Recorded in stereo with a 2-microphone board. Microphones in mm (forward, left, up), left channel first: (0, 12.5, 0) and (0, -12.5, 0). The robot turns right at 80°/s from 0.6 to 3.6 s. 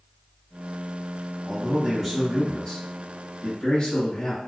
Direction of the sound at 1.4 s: 40° right.